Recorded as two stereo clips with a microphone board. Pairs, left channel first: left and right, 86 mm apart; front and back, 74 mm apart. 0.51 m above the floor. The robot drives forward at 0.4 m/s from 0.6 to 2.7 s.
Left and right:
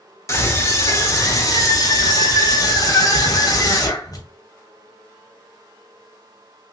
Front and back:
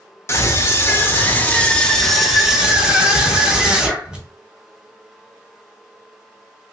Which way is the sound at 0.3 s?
45° left.